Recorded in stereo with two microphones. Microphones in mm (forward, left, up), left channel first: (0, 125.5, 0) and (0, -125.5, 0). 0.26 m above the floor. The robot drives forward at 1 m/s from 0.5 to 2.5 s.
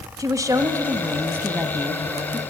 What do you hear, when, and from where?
0.2 s a woman speaking: 15° right (ahead or behind), 1.1 m; by 2.4 s 5° right (ahead or behind), 2.5 m